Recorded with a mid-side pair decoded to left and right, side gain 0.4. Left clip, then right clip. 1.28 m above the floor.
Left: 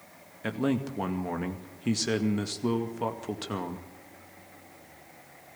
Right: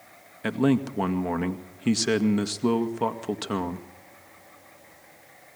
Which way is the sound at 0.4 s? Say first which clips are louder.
Right 5 dB; 30° right.